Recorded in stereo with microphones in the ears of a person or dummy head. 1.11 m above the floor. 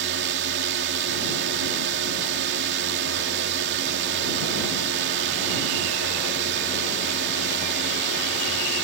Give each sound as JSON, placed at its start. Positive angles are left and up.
{"t": 0.0, "sound": "a drone", "side_deg": -60}